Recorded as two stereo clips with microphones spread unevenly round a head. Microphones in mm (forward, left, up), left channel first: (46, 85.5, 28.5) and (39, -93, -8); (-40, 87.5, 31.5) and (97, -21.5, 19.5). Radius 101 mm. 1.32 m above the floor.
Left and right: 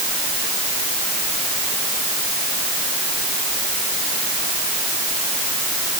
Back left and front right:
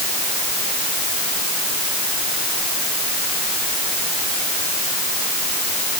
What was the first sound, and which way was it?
Only background noise.